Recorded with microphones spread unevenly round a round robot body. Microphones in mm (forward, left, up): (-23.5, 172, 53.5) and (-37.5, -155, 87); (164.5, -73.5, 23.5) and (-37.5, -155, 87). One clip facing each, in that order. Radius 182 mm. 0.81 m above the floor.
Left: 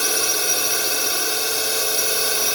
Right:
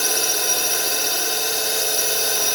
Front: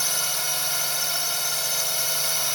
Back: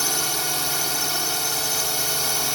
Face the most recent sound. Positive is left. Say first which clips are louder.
# even, back 7 dB
turn(degrees=175)